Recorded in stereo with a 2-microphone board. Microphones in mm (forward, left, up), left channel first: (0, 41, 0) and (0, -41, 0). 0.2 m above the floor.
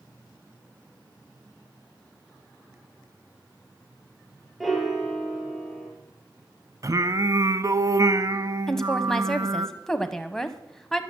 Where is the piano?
Centre (ahead or behind), 2.5 m.